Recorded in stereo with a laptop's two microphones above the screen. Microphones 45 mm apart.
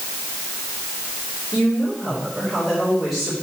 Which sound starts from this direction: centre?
A woman speaking, at 1.5 s.